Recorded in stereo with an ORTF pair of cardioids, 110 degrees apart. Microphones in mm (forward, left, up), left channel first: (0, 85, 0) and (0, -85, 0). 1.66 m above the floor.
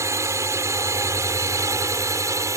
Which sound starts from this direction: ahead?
A drone, at 0.0 s.